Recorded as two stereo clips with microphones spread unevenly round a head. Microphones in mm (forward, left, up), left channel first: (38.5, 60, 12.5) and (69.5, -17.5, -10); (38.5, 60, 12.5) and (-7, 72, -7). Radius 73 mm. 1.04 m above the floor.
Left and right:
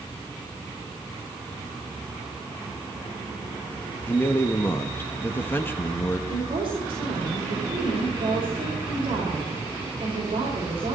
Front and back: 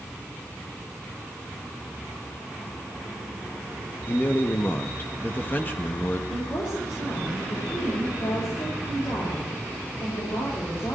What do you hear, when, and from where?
4.1 s a man speaking: 45° left, 1.2 m
6.3 s a woman speaking: 50° right, 5 m